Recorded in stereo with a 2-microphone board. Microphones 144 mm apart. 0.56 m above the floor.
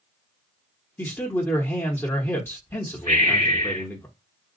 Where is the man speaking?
15° left (ahead or behind), 0.9 m.